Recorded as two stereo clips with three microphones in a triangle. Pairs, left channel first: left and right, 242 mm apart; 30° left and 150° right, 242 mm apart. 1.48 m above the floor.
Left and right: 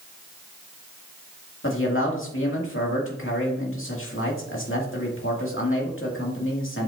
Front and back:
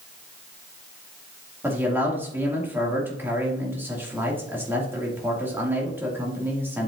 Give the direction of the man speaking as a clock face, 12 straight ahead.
8 o'clock.